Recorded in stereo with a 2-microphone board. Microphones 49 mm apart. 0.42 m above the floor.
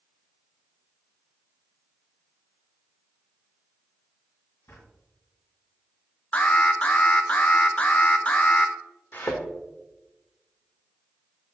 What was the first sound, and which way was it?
A drawer, 75° left (ahead or behind).